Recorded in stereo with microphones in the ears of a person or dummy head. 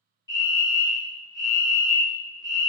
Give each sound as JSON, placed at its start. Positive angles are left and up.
{"t": 0.3, "sound": "a fire alarm", "side_deg": 15, "distance_m": 1.4}